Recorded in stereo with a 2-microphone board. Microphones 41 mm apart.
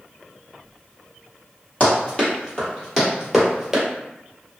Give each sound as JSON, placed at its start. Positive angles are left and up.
{"t": 1.8, "sound": "running footsteps", "side_deg": 35, "distance_m": 1.7}